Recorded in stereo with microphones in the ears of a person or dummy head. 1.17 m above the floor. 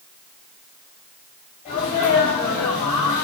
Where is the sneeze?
35° left (ahead or behind), 5 m.